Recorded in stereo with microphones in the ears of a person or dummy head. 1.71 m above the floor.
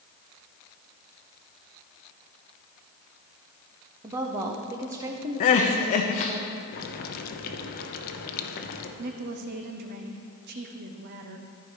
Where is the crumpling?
No crumpling in this recording.